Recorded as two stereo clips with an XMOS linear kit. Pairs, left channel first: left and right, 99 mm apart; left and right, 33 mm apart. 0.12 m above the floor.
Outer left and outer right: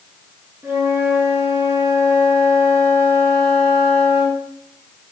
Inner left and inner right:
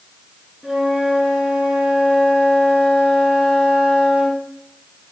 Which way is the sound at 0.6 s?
25° right (ahead or behind).